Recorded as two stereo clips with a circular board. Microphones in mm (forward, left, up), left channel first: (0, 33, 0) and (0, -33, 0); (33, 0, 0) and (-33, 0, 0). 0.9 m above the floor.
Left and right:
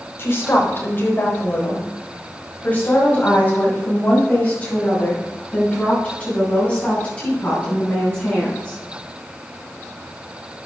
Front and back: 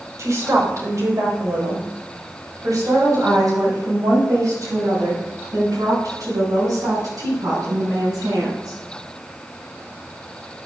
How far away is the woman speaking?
About 3.5 m.